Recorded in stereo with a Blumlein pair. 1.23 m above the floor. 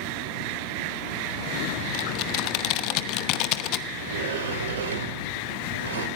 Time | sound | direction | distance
1.9 | typing on a keyboard | 40° left | 1.0 m
3.9 | a sliding door | 65° right | 2.5 m